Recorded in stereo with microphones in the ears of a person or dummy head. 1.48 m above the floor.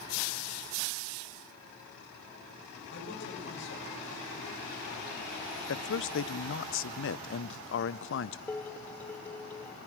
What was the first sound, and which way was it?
A man speaking, 70° left (ahead or behind).